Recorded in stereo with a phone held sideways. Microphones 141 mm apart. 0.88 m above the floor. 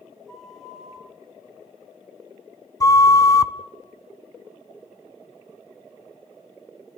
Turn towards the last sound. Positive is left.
turn(degrees=25)  # may be behind; listen again after turning